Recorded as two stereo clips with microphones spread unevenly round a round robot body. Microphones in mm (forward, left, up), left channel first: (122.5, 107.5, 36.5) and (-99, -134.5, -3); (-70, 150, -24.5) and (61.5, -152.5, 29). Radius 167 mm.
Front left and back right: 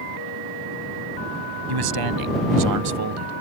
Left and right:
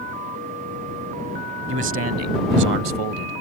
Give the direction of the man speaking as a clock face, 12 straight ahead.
4 o'clock.